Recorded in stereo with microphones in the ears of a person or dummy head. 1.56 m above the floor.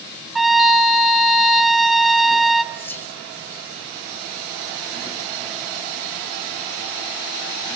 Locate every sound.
0.3 s a trumpet: centre (ahead or behind), 1.3 m
2.7 s whispering: 15° left (ahead or behind), 4.5 m